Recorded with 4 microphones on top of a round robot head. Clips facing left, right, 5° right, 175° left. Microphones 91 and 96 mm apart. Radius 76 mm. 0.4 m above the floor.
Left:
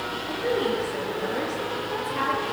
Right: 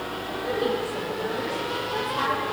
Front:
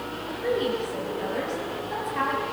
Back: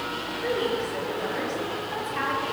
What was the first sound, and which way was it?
A woman speaking, 75° left.